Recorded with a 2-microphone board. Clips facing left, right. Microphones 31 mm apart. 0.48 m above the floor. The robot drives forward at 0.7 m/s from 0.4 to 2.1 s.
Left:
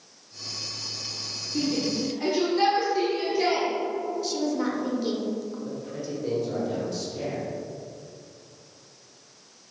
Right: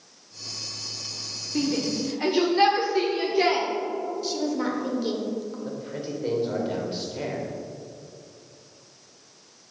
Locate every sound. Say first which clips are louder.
1.6 s a shout: right 1 dB; 35° right (ahead or behind), 0.9 m; by 3.7 s 30° right (ahead or behind), 1.0 m
4.2 s a woman speaking: even; 10° right (ahead or behind), 1.4 m
5.7 s a man speaking: right 1 dB; 40° right (ahead or behind), 1.8 m